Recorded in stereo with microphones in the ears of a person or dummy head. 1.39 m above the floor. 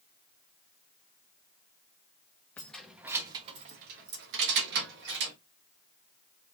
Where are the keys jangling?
10° left (ahead or behind), 0.7 m; by 5.3 s 60° right (ahead or behind), 1.3 m.